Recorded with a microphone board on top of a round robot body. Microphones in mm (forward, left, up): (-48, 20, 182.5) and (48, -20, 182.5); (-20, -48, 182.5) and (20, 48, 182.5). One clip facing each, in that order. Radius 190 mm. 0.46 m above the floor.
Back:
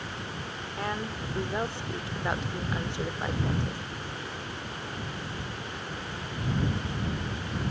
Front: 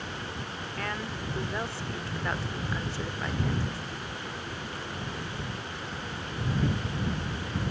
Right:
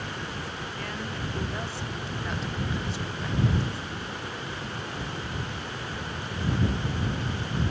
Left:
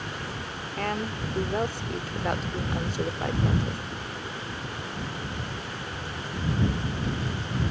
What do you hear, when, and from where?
0.8 s a woman speaking: 90° left